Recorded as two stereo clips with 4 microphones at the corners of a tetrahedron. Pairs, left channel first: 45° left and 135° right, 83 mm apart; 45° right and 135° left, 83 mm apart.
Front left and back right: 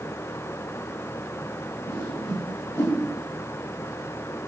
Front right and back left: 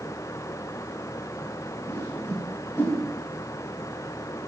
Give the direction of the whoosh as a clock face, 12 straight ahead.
12 o'clock.